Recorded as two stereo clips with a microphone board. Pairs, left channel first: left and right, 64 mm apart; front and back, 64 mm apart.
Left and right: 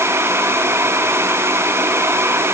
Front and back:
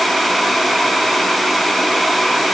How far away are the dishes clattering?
No dishes clattering in this recording.